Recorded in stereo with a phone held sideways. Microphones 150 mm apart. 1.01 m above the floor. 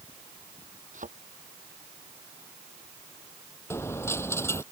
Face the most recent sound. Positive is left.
turn(degrees=15)  # may be behind; listen again after turning